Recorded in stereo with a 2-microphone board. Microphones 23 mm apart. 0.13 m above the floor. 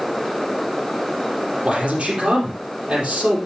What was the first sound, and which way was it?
A man speaking, 70° right (ahead or behind).